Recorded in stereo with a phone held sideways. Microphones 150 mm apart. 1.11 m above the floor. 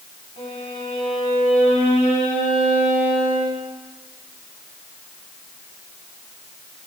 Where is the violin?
60° left (ahead or behind), 4 m.